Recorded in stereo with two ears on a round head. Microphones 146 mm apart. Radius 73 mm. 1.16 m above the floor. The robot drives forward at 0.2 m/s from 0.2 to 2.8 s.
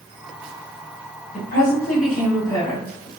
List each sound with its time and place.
1.3 s a woman speaking: 65° left (ahead or behind), 1.4 m; by 3.1 s 55° left (ahead or behind), 1.5 m